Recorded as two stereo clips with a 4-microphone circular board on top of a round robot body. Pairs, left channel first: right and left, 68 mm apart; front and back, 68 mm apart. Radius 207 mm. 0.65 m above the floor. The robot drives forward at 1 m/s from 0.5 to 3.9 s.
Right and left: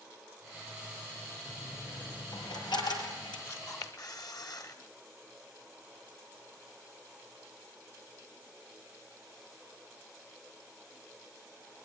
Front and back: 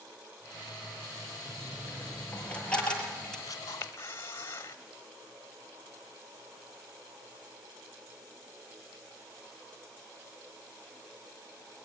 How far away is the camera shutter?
About 1.5 m.